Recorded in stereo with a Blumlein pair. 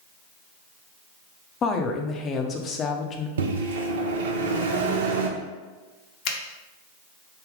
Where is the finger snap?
40° left, 0.7 m.